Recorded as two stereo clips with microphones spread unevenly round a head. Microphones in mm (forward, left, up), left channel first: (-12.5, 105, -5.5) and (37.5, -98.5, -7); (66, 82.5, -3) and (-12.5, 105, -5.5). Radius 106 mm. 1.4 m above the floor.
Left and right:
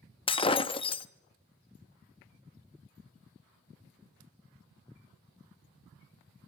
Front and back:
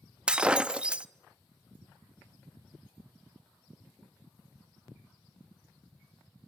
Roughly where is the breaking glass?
Left.